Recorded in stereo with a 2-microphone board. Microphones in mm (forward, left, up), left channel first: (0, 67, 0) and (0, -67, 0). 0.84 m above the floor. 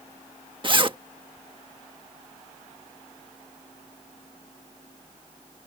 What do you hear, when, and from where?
0.6 s a zipper: 40° right (ahead or behind)